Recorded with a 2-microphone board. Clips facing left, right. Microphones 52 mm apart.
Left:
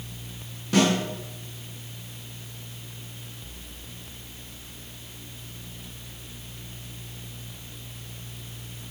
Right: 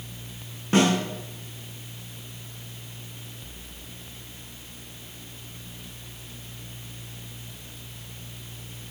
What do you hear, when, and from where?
0.7 s a snare drum: 35° right (ahead or behind), 7.5 m